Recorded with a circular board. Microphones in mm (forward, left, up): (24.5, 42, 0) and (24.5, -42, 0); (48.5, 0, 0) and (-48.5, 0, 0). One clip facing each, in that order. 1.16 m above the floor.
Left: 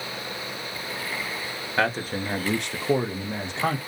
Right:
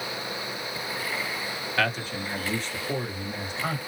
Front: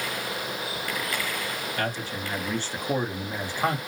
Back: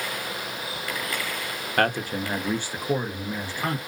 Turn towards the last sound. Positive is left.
turn(degrees=70)